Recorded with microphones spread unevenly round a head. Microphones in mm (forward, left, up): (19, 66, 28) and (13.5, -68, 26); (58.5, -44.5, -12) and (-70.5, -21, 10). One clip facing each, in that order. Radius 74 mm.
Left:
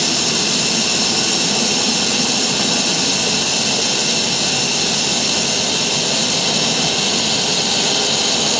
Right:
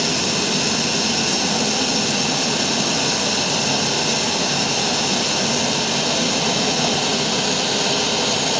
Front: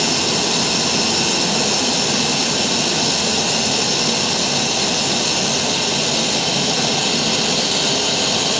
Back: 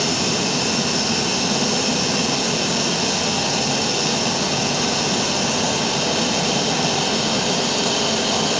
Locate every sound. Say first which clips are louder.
0.0 s running water: even, front 1 dB; 60° left, 4 m